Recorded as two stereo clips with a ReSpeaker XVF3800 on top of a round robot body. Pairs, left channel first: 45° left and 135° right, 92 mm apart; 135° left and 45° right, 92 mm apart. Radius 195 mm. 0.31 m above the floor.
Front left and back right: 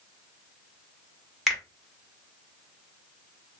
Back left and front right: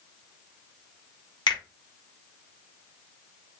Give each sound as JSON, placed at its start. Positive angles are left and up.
{"t": 1.5, "sound": "a finger snap", "azimuth_deg": 140, "distance_m": 1.5}